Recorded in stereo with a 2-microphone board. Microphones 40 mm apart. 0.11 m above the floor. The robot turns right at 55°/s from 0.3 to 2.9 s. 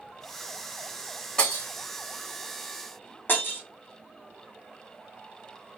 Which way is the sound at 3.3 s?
55° left (ahead or behind).